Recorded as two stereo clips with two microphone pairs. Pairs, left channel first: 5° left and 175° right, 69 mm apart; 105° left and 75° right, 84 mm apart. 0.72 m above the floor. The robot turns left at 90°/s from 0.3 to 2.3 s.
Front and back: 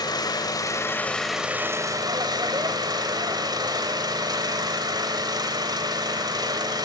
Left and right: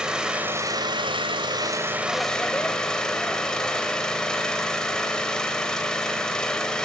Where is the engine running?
5° left, 2.5 m; by 6.9 s 175° right, 2.5 m.